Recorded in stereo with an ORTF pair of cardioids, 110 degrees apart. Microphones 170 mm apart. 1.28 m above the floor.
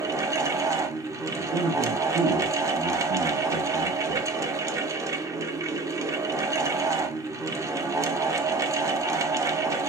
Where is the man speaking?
65° right, 1.1 m.